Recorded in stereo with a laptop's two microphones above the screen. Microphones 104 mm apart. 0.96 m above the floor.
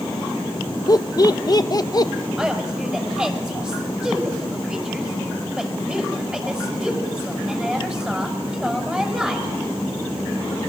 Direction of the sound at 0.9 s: 40° left (ahead or behind).